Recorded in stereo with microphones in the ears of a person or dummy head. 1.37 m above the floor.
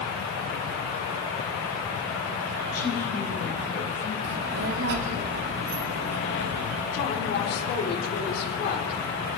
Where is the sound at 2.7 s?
50° left (ahead or behind), 6.5 m; by 4.1 s 55° left (ahead or behind), 5 m.